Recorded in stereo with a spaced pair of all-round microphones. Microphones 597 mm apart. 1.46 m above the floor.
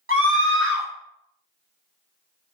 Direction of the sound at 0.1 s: 20° right (ahead or behind).